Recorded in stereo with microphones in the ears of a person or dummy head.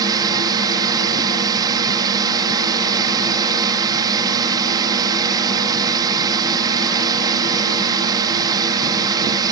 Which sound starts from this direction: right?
A drone, at 0.0 s.